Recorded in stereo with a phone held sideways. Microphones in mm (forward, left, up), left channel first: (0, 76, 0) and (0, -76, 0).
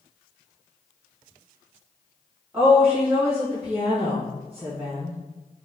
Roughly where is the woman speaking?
Centre.